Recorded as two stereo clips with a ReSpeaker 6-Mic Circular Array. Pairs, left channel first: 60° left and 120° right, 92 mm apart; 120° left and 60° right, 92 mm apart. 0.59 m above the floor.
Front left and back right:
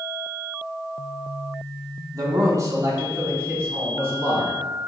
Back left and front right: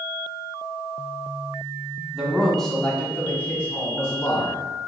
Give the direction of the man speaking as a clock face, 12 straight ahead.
5 o'clock.